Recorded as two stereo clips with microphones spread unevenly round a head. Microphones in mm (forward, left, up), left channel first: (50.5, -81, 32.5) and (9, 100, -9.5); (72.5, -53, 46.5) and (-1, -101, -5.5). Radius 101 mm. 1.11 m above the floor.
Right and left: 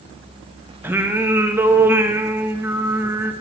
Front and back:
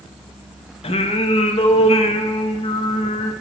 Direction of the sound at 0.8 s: 25° left.